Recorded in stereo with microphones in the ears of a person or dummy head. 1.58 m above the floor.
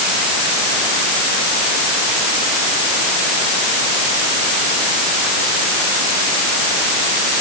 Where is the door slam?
No door slam in this recording.